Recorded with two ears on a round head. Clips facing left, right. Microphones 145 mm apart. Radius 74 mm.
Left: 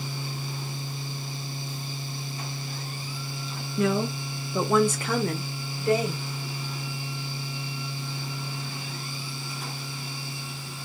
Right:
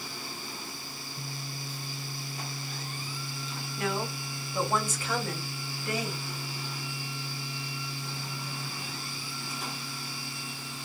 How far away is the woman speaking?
About 0.8 m.